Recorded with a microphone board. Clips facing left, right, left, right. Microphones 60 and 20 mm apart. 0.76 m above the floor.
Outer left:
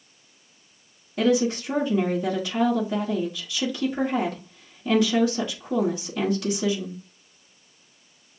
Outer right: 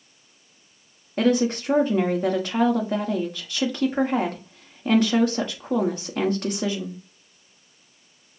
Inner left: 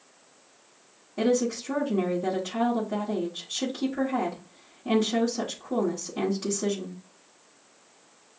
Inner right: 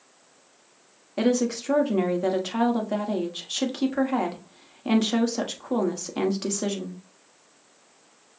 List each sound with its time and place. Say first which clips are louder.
1.2 s a woman speaking: outer right 1 dB, inner right 1 dB; 45° right (ahead or behind), 1.2 m